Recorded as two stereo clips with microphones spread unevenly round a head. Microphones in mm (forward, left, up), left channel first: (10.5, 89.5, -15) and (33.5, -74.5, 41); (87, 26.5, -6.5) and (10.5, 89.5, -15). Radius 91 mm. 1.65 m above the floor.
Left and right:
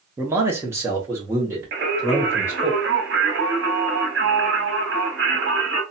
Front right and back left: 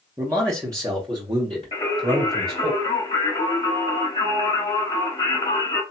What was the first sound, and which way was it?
A man speaking, 145° right.